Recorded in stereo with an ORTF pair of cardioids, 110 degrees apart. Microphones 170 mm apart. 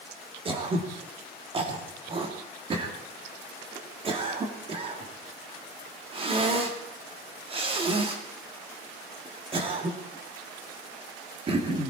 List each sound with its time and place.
0.5 s throat clearing: 30° right, 2.5 m